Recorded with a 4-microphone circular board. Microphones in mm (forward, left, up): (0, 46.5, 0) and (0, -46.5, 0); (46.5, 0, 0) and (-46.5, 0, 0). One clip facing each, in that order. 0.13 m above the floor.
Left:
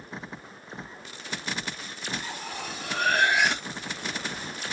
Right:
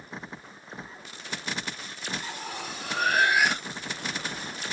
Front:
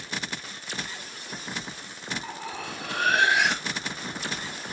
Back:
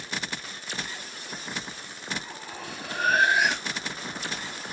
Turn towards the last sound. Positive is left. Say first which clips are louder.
# even, front 4 dB
turn(degrees=-5)